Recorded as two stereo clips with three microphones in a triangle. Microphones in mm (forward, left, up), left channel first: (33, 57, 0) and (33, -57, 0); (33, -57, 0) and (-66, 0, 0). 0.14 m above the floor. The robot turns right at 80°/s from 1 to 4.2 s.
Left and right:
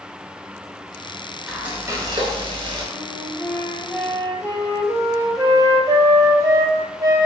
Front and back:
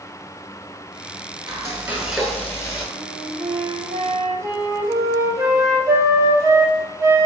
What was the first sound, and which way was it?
Frying, 175° right.